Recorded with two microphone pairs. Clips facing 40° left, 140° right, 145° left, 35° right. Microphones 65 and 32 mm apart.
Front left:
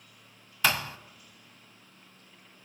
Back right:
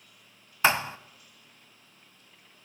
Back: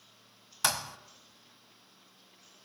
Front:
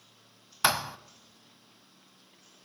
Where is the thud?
95° right, 0.7 m.